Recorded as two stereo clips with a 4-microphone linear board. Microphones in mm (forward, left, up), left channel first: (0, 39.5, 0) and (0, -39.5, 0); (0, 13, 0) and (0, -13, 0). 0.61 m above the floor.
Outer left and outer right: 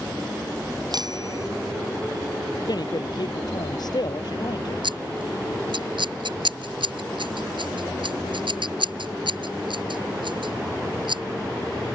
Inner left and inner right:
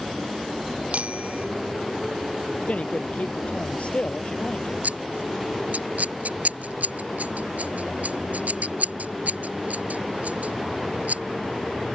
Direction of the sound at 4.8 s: 85° right.